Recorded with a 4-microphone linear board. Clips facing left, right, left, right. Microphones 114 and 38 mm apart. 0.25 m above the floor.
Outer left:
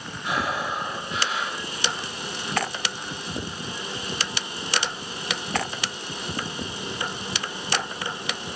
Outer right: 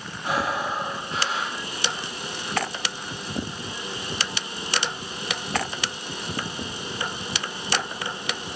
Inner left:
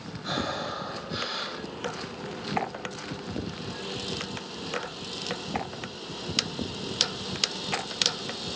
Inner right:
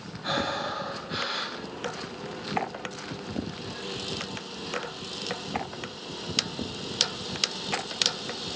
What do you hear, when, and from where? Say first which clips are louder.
0.2 s breathing: outer right 1 dB, inner right 2 dB; 35° right (ahead or behind), 2 m